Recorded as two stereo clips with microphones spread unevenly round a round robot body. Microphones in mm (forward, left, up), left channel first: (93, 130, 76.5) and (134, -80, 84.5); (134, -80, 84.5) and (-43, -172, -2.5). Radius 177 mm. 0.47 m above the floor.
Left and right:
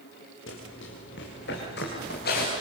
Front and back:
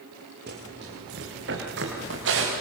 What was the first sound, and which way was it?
Running footsteps, 150° left.